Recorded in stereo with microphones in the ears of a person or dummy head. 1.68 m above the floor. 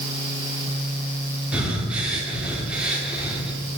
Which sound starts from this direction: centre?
Breathing, at 1.5 s.